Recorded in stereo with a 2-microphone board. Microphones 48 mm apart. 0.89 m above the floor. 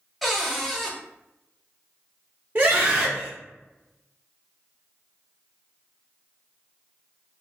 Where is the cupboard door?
5° left (ahead or behind), 0.6 m.